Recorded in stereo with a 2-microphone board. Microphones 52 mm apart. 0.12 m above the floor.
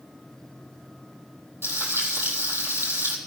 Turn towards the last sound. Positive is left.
turn(degrees=-45)  # may be behind; listen again after turning